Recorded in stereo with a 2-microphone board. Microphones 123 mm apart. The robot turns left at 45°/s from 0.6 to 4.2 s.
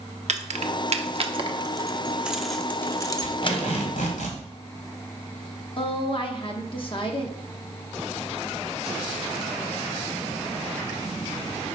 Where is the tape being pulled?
145° left, 3 m; by 4.4 s 100° left, 3 m.